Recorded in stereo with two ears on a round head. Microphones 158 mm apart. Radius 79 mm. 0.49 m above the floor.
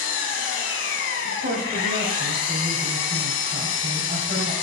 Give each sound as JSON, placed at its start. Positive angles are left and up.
{"t": 0.0, "sound": "an engine running", "side_deg": 75, "distance_m": 1.3}
{"t": 1.2, "sound": "a woman speaking", "side_deg": -45, "distance_m": 3.0}